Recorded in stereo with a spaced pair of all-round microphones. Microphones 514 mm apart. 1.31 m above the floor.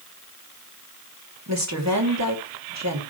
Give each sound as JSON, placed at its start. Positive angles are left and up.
{"t": 1.5, "sound": "a woman speaking", "side_deg": -30, "distance_m": 2.5}